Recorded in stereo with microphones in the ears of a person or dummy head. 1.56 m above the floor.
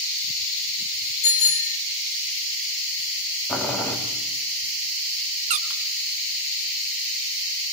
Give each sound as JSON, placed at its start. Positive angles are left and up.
{"t": 1.2, "sound": "a bicycle bell", "side_deg": 35, "distance_m": 3.0}
{"t": 3.5, "sound": "boiling", "side_deg": 10, "distance_m": 4.0}
{"t": 5.5, "sound": "a squeak", "side_deg": -40, "distance_m": 0.7}